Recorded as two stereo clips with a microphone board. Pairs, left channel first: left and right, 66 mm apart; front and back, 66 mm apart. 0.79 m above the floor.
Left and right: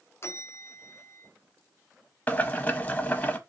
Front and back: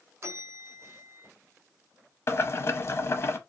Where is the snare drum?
I don't hear a snare drum.